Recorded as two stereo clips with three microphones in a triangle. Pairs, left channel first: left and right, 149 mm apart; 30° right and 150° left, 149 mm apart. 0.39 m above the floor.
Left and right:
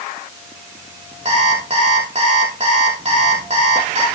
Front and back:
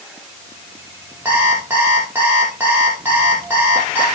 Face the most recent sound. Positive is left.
turn(degrees=-135)